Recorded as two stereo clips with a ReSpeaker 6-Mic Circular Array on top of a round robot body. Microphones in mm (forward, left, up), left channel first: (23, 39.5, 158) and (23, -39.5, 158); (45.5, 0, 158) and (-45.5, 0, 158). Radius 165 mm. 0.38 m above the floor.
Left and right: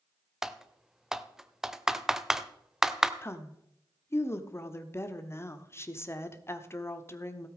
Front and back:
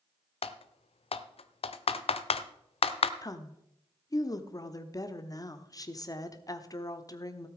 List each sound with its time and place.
0.4 s typing on a keyboard: 5° right, 0.7 m
3.2 s a woman speaking: 40° left, 1.2 m